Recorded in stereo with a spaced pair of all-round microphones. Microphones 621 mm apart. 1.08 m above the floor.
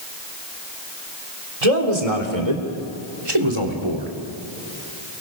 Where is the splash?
No splash in this recording.